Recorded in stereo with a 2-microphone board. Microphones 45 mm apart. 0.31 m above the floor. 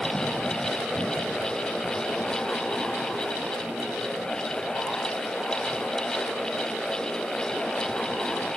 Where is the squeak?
No squeak in this recording.